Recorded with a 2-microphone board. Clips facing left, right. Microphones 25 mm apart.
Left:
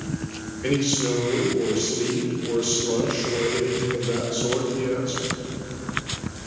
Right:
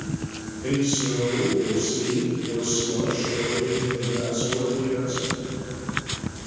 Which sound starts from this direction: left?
A man speaking, at 0.6 s.